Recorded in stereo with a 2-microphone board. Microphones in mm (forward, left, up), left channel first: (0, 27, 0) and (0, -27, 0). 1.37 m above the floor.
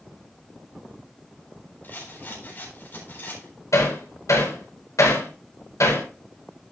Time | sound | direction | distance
1.8 | a rattle | 40° left (ahead or behind) | 4 m
3.7 | hammering | 75° left (ahead or behind) | 4.5 m